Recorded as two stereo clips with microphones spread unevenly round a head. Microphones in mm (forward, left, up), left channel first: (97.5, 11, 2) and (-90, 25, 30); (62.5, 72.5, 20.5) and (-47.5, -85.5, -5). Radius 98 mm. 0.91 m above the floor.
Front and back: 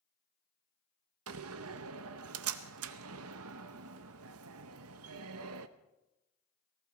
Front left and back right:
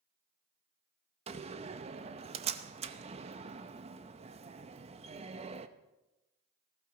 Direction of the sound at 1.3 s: Straight behind.